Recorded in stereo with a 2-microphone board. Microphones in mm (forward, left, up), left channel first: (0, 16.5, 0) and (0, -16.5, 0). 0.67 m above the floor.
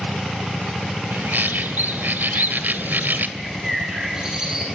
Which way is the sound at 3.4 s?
15° right (ahead or behind).